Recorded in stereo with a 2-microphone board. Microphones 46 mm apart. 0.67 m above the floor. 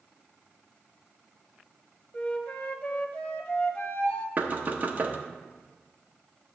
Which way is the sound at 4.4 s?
35° right (ahead or behind).